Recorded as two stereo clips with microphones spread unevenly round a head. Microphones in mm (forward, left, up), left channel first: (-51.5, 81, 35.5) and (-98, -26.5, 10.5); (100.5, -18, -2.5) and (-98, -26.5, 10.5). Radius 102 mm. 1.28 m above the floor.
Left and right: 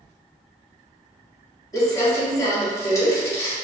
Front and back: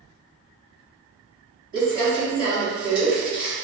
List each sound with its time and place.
1.7 s crumpling: 130° left, 1.8 m